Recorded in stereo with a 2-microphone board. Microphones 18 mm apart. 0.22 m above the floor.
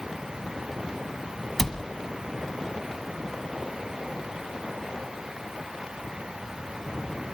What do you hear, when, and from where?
1.6 s a cupboard door: 20° left (ahead or behind), 1.3 m